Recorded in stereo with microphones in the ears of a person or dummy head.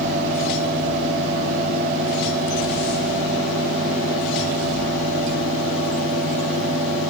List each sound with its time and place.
0.0 s a fan: 45° right (ahead or behind), 3.5 m